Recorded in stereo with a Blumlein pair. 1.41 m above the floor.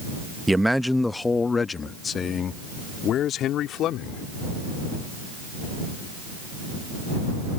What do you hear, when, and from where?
0.5 s a man speaking: 5° right; by 4.2 s 35° left